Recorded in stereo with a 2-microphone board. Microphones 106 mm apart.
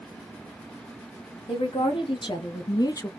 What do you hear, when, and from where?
1.5 s a woman speaking: 50° left (ahead or behind), 1.4 m; by 3.1 s 30° left (ahead or behind), 0.5 m